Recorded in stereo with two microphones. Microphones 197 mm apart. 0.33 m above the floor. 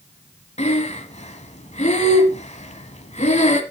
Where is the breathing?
35° left (ahead or behind), 1.3 m.